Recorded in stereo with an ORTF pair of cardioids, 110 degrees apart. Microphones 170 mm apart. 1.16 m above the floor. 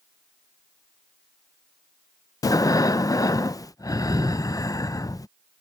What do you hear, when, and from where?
2.4 s breathing: 20° left